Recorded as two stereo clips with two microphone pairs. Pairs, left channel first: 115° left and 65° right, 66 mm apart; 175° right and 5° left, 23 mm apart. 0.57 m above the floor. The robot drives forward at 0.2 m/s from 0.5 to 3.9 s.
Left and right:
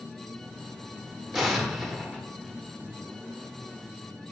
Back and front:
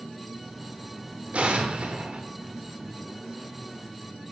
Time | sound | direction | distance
1.3 | an explosion | 20° left | 1.1 m